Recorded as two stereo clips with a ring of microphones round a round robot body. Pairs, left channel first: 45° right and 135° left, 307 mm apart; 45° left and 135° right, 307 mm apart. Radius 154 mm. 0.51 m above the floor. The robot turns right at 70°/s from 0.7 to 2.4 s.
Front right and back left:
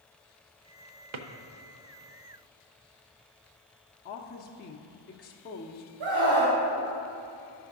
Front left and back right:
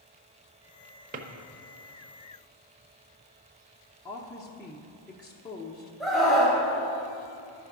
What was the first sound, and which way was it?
A drawer, 160° left.